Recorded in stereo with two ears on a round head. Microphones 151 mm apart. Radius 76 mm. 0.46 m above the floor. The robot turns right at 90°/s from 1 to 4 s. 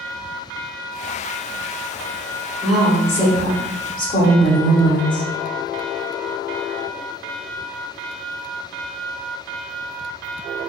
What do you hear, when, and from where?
2.6 s a woman speaking: 10° right, 0.9 m; by 5.3 s 115° left, 0.9 m